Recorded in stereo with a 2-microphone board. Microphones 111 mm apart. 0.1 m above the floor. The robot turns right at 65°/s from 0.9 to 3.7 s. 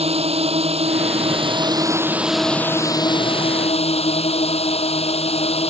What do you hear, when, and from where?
0.0 s a drone: 95° right; by 5.7 s 85° left